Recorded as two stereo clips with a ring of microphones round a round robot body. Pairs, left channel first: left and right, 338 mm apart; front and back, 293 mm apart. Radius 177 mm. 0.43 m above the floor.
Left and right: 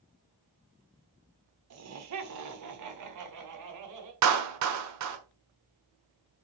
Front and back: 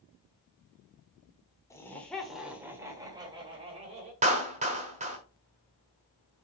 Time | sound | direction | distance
1.7 | laughter | 75° right | 1.6 m
4.2 | a clap | 115° right | 1.3 m